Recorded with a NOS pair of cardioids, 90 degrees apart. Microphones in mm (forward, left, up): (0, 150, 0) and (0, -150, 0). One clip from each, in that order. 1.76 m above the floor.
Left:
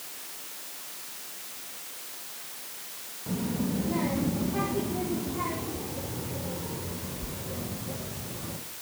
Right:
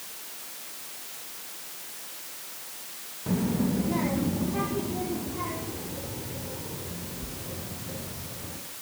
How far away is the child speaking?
About 2.0 m.